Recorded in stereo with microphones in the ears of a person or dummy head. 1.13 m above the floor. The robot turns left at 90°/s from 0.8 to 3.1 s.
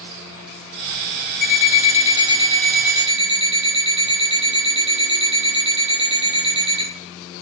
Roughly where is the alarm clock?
Behind left.